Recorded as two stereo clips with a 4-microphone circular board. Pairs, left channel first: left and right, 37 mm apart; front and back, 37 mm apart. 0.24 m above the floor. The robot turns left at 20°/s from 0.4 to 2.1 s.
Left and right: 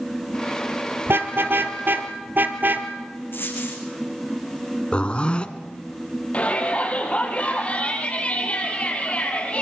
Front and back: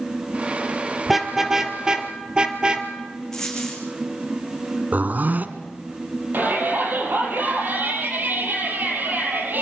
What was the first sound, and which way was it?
A car horn, 95° right.